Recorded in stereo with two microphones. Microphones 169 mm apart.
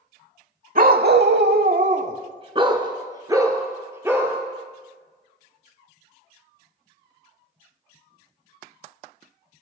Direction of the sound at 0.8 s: 55° right (ahead or behind).